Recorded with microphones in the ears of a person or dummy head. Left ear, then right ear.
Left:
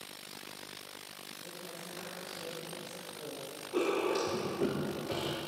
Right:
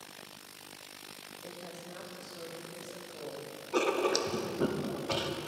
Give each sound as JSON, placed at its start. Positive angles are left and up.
{"t": 1.4, "sound": "a woman speaking", "side_deg": -45, "distance_m": 2.5}
{"t": 3.7, "sound": "writing", "side_deg": -50, "distance_m": 0.8}